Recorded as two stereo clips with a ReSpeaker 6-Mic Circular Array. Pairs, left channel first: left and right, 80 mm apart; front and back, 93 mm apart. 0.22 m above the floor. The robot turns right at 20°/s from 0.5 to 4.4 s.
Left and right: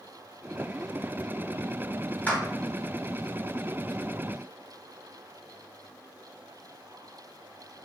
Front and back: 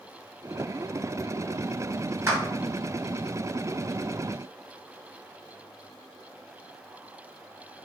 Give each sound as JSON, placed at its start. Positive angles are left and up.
{"t": 2.3, "sound": "a clap", "azimuth_deg": 145, "distance_m": 1.5}